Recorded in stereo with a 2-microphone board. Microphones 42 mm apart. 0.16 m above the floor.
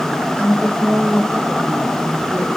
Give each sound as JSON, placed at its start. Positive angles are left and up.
{"t": 0.3, "sound": "a woman speaking", "side_deg": -75, "distance_m": 7.5}